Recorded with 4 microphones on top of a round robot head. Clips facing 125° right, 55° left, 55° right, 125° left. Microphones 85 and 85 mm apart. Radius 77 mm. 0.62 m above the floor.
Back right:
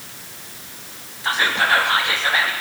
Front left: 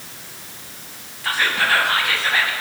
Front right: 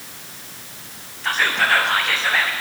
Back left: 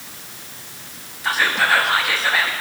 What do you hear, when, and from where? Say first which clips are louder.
1.2 s whispering: back right 1 dB, back left 1 dB; 165° right, 1.0 m